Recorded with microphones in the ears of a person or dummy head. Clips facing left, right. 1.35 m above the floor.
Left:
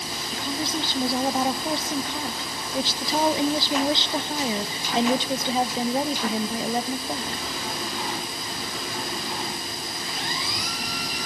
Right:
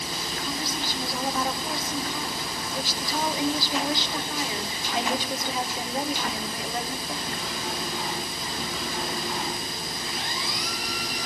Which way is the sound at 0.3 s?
30° left (ahead or behind).